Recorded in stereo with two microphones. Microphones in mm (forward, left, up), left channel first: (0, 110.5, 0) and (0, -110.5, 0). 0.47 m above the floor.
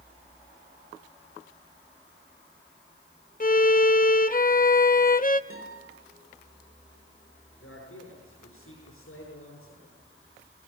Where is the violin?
40° left (ahead or behind), 0.8 m.